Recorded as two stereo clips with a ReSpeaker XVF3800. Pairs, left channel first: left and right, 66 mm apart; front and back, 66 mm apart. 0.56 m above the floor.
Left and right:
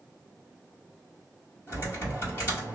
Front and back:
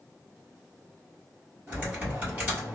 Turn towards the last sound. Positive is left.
turn(degrees=125)